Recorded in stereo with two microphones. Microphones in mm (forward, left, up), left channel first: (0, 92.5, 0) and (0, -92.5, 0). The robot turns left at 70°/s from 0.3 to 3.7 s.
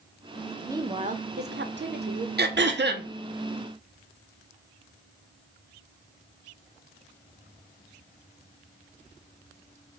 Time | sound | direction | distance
0.7 | a woman speaking | 15° right | 0.6 m
2.4 | throat clearing | 70° right | 0.6 m